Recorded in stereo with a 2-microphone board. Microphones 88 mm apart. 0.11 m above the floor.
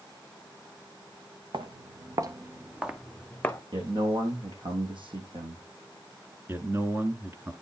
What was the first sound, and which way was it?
Footsteps, 70° right (ahead or behind).